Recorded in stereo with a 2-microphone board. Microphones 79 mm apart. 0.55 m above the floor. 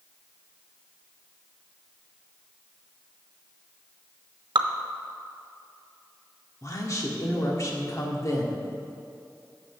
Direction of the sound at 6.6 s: 40° left (ahead or behind).